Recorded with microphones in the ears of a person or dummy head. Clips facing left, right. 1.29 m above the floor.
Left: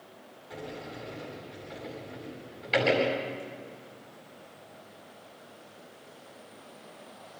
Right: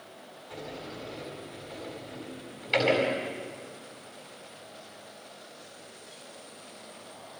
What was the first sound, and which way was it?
A sliding door, 15° left (ahead or behind).